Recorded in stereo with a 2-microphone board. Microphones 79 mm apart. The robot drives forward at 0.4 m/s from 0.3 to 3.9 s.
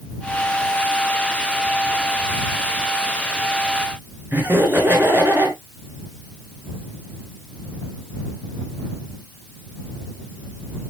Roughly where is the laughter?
Right.